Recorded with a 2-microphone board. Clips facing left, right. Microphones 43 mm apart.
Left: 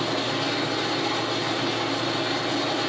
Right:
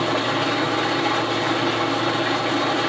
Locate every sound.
0.0 s an engine running: 50° right (ahead or behind), 1.4 m